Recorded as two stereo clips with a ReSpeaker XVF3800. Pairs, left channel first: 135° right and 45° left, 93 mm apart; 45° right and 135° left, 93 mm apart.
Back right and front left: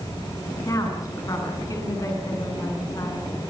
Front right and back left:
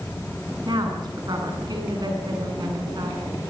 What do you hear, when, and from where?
0.7 s a woman speaking: 175° left, 9 m